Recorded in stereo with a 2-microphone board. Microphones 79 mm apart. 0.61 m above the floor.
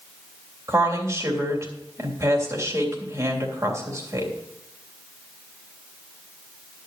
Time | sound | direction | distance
0.7 | a woman speaking | 40° right (ahead or behind) | 3 m